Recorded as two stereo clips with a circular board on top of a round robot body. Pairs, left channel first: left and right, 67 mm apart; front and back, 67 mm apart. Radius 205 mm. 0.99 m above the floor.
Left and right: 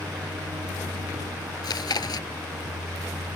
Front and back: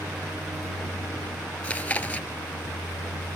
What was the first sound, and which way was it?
A vehicle, 100° right.